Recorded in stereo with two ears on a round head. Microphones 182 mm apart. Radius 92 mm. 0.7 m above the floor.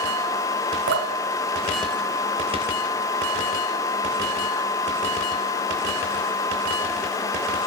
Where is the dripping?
60° right (ahead or behind), 2.5 m.